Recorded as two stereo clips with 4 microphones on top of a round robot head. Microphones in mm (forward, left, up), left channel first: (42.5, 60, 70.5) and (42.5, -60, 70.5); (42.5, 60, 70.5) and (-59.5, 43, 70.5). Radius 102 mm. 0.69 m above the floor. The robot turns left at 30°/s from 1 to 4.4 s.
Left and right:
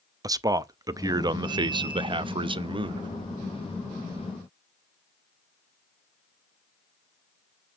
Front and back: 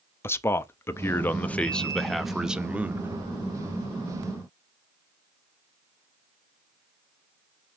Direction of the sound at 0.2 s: 45° right.